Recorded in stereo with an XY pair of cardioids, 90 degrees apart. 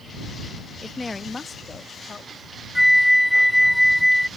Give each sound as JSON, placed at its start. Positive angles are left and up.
{"t": 0.8, "sound": "a woman speaking", "azimuth_deg": 15}
{"t": 2.8, "sound": "a flute", "azimuth_deg": 5}